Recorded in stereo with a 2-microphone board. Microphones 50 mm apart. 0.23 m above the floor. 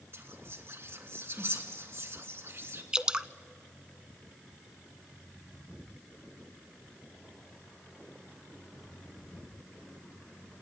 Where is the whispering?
55° right (ahead or behind), 2.5 m.